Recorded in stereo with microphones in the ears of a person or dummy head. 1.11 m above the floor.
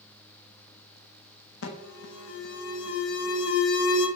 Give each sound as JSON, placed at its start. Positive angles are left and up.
{"t": 1.6, "sound": "an alarm", "side_deg": 85, "distance_m": 1.0}